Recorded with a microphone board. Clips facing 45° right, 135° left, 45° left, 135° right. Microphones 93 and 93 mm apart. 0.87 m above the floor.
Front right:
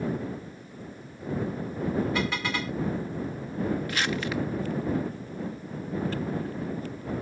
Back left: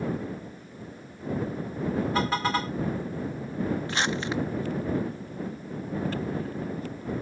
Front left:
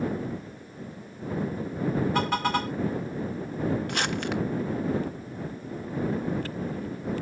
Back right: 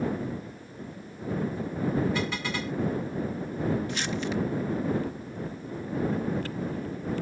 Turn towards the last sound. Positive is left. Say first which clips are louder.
# back left 1 dB, front left 1 dB
turn(degrees=70)